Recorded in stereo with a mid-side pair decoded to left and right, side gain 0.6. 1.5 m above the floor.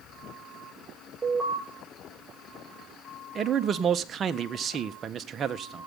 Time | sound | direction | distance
1.2 | an alarm | 10° right | 8.5 m
3.4 | a man speaking | 40° right | 1.5 m